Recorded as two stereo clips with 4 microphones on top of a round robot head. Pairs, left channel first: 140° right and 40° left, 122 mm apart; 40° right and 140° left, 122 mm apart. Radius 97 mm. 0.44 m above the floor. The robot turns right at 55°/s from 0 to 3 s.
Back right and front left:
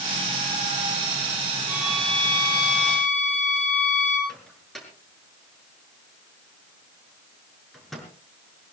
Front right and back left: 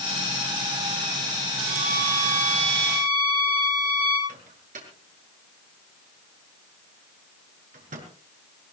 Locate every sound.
1.7 s a violin: 115° left, 7 m; by 4.2 s 170° right, 7 m
4.3 s a microwave: 135° left, 6 m